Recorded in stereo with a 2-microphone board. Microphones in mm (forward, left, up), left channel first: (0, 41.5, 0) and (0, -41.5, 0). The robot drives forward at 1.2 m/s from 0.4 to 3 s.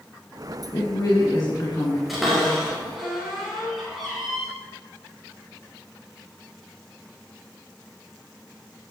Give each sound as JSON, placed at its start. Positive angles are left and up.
{"t": 0.7, "sound": "a woman speaking", "side_deg": 60, "distance_m": 2.5}
{"t": 2.1, "sound": "a cupboard door", "side_deg": 0, "distance_m": 5.0}